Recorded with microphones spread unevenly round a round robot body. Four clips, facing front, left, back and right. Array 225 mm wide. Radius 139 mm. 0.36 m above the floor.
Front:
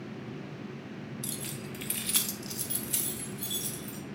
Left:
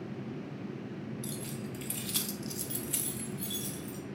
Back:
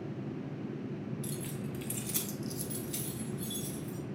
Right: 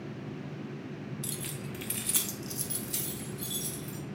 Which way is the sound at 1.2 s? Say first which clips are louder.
Left 1 dB, back 1 dB; 75° right.